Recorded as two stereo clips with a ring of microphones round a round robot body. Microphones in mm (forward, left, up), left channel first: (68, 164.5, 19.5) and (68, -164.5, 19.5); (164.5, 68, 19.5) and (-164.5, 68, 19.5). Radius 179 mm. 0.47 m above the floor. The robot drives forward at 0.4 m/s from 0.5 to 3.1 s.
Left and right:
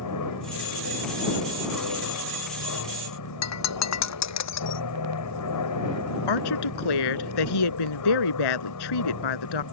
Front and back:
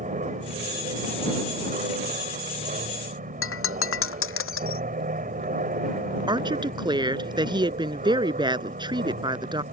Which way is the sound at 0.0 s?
115° left.